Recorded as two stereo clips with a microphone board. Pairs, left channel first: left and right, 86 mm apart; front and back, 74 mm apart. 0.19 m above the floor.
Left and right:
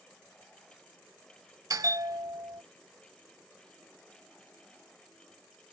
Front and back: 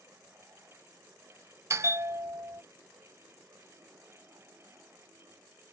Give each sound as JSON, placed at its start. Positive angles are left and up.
{"t": 1.7, "sound": "a bell", "azimuth_deg": -135}